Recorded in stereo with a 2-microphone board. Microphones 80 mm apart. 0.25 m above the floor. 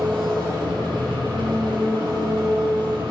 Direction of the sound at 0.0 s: 75° right (ahead or behind).